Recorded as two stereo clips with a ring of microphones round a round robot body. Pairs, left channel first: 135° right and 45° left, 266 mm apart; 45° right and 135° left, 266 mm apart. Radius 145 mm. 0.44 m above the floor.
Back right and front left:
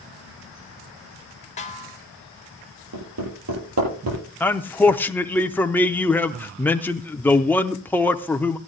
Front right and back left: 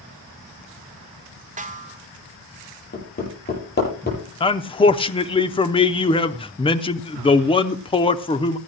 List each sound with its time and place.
1.6 s a snare drum: straight behind, 1.6 m
2.9 s hammering: 10° left, 8.5 m
4.4 s a man speaking: 65° right, 0.7 m